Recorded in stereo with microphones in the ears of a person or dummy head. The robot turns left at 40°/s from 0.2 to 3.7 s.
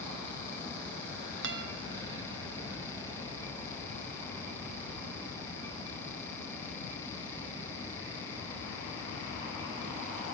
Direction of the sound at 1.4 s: 55° right (ahead or behind).